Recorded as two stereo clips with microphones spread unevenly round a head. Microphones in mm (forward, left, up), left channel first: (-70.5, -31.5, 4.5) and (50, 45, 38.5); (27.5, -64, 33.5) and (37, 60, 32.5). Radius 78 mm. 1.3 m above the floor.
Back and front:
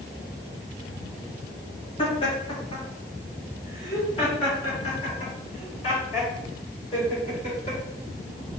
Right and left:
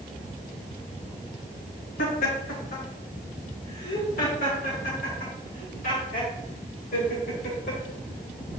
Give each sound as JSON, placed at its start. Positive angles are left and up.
{"t": 2.0, "sound": "laughter", "azimuth_deg": -90, "distance_m": 2.5}